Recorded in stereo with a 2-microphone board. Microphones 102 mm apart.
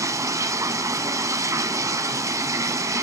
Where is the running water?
30° right (ahead or behind), 0.8 m.